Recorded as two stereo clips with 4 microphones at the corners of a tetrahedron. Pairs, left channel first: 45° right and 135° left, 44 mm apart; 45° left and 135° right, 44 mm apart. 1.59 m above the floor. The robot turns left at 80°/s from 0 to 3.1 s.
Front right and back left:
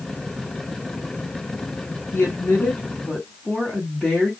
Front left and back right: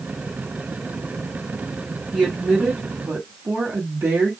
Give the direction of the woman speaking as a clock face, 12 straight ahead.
2 o'clock.